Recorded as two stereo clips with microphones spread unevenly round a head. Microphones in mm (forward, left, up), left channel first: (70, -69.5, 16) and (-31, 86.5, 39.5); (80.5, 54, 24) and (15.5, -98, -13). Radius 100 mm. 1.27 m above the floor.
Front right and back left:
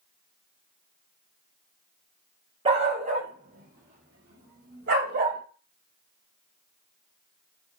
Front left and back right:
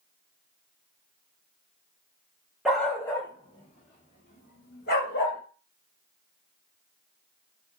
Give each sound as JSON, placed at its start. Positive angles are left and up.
{"t": 2.6, "sound": "a dog barking", "azimuth_deg": 140, "distance_m": 0.7}